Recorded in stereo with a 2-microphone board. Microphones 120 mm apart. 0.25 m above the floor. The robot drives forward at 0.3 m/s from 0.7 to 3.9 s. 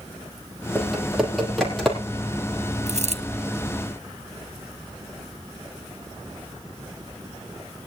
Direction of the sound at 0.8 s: Centre (ahead or behind).